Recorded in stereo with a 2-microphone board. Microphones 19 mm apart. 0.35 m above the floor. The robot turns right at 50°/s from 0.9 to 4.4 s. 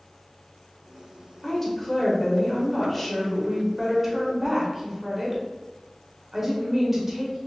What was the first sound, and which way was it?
A woman speaking, 20° left (ahead or behind).